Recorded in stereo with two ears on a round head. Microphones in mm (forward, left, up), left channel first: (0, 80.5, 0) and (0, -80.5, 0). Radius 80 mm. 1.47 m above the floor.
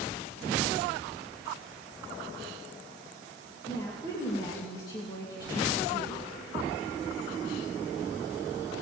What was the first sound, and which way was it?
A woman speaking, 20° left (ahead or behind).